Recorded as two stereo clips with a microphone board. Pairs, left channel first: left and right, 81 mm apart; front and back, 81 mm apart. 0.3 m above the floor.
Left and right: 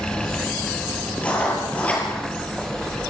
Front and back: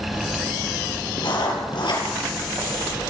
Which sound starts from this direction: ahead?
Writing, at 1.2 s.